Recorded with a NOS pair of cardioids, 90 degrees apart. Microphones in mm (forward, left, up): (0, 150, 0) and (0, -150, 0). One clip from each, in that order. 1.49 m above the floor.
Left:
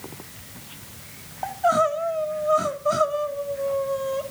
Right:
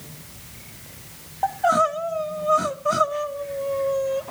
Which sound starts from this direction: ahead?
Crying, at 1.4 s.